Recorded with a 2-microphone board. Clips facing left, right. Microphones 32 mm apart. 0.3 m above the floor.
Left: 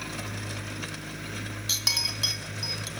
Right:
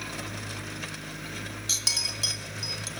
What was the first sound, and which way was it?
A clink, 20° left (ahead or behind).